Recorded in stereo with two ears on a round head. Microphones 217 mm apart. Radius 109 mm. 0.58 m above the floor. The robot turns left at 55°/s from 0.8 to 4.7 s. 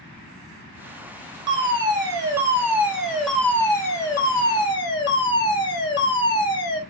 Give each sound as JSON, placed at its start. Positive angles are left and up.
{"t": 1.5, "sound": "a fire alarm", "side_deg": -20, "distance_m": 1.5}